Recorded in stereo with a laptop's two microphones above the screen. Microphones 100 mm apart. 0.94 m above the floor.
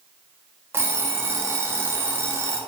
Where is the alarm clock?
25° right (ahead or behind), 0.5 m.